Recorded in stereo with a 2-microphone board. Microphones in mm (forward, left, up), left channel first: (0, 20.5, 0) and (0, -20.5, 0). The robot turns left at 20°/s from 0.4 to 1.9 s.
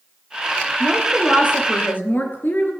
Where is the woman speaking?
40° left (ahead or behind), 3.5 m; by 2.7 s 60° left (ahead or behind), 3.5 m.